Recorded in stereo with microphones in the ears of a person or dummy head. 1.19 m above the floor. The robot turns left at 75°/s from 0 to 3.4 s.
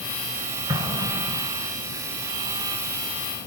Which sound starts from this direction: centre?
An explosion, at 0.7 s.